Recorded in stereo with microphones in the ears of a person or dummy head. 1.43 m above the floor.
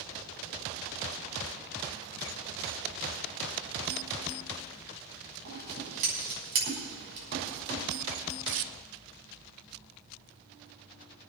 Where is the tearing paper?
70° right (ahead or behind), 0.7 m.